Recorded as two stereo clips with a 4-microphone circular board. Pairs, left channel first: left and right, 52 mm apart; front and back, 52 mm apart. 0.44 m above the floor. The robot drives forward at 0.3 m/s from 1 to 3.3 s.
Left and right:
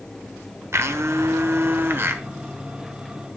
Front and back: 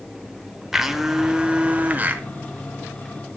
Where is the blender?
100° right, 0.7 m; by 2.2 s 130° right, 0.8 m.